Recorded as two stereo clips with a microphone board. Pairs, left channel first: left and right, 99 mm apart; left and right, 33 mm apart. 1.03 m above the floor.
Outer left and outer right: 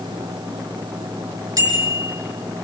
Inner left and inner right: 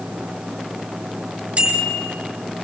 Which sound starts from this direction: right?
A bicycle bell, at 1.6 s.